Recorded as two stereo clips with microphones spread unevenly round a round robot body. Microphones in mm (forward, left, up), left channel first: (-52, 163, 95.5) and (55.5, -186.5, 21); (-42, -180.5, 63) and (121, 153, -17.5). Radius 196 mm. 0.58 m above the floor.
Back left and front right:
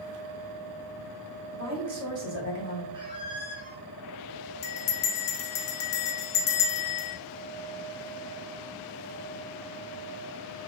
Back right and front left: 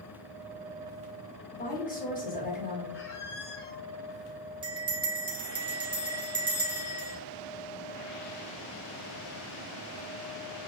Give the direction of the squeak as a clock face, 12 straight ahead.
5 o'clock.